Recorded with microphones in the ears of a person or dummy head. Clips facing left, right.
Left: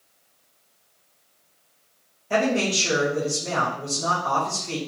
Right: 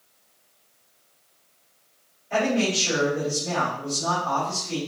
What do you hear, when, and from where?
2.3 s a man speaking: 85° left, 3.5 m